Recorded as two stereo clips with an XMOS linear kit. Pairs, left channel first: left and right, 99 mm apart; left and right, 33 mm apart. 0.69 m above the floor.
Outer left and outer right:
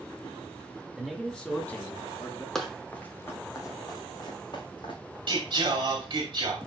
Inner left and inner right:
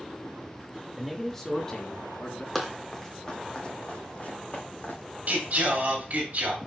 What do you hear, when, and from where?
1.0 s a man speaking: centre (ahead or behind), 1.6 m; by 2.5 s 35° left (ahead or behind), 2 m
2.5 s running footsteps: 5° left (ahead or behind), 1.5 m; by 5.2 s 60° left (ahead or behind), 2.5 m
5.3 s singing: 50° right (ahead or behind), 2.5 m